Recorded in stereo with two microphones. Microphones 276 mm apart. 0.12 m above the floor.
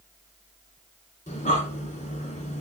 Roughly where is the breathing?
Left.